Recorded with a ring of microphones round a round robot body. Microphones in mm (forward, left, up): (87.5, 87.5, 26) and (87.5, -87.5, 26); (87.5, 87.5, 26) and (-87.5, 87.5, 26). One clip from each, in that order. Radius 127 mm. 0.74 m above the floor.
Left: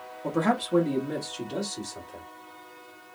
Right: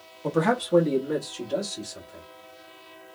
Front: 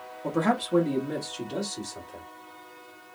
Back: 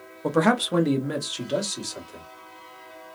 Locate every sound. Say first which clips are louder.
0.2 s a man speaking: right 2 dB, back 5 dB; 155° right, 0.6 m; by 2.2 s 175° left, 1.7 m